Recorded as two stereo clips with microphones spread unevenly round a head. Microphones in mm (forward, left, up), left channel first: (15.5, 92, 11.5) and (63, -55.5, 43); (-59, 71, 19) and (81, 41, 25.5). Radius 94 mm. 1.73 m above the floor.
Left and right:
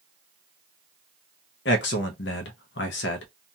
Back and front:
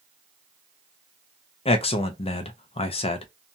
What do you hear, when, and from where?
1.6 s a man speaking: 125° left, 0.6 m